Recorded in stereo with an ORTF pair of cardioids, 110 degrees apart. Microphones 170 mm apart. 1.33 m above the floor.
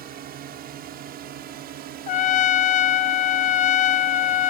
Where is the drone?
65° right; by 4.5 s 80° right.